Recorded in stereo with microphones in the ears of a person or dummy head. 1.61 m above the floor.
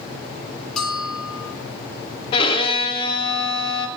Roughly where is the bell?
Centre.